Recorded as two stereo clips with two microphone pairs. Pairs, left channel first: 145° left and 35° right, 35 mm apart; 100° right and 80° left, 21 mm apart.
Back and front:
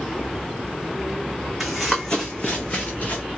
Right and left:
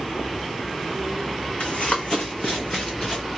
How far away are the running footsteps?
About 0.8 m.